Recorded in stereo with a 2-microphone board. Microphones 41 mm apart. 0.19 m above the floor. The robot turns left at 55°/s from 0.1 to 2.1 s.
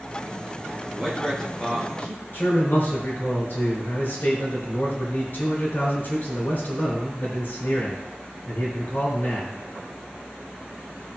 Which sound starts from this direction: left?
A man speaking, at 2.3 s.